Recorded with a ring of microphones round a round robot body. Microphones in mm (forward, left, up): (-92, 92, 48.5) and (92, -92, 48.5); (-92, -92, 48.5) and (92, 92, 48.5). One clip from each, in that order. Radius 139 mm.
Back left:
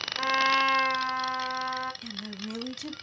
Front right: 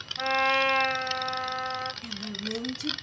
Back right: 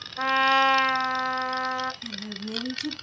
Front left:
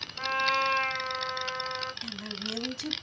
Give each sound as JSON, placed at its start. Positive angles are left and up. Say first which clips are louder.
{"t": 0.2, "sound": "a trumpet", "louder": "even, back right 6 dB", "azimuth_deg": -165, "distance_m": 1.6}
{"t": 2.0, "sound": "a woman speaking", "louder": "front right 3 dB, back right 1 dB", "azimuth_deg": 100, "distance_m": 3.5}